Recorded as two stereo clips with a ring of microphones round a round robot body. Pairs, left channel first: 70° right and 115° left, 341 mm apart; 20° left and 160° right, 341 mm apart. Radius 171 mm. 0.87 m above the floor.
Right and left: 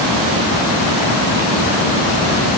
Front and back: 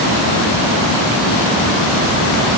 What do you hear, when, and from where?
Only background noise.